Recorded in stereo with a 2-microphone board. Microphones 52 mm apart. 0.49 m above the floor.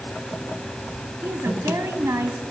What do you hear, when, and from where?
1.2 s a woman speaking: 65° right (ahead or behind), 3.5 m